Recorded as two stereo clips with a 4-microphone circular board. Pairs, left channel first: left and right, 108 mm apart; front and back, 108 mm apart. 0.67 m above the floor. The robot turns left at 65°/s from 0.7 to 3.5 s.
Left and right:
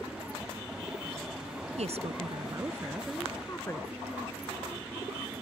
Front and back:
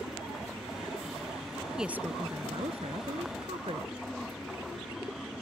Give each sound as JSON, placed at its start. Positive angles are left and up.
{"t": 1.8, "sound": "a woman speaking", "azimuth_deg": -95}